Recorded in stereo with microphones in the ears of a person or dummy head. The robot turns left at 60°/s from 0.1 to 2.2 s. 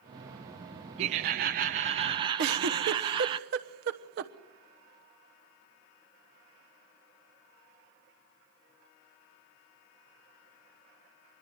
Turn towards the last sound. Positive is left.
turn(degrees=-65)  # may be behind; listen again after turning